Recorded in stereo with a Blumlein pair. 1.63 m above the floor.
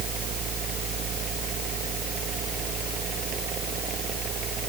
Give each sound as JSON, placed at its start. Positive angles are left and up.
{"t": 0.0, "sound": "a machine running", "azimuth_deg": -30}